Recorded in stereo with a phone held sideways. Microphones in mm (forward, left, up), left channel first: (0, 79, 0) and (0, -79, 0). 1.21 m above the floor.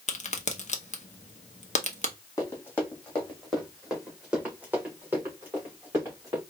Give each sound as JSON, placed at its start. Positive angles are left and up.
{"t": 0.1, "sound": "a crack", "side_deg": 50, "distance_m": 0.7}
{"t": 2.4, "sound": "running footsteps", "side_deg": 20, "distance_m": 1.9}